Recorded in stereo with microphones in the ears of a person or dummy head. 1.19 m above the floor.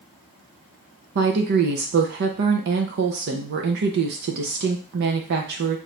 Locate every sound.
1.1 s a woman speaking: 55° right (ahead or behind), 0.6 m